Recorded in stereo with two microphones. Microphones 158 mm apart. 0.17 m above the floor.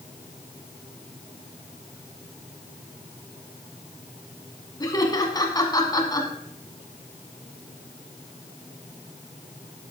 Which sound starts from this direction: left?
Laughter, at 4.8 s.